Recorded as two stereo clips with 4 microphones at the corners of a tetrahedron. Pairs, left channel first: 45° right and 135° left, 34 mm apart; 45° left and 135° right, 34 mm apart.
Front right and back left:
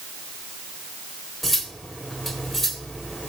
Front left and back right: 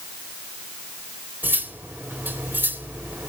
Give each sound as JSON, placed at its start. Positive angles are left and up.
{"t": 1.4, "sound": "cutlery clinking", "azimuth_deg": -135, "distance_m": 1.6}